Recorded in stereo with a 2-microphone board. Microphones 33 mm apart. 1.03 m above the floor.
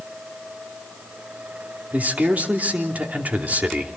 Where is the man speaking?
65° right (ahead or behind), 3 m.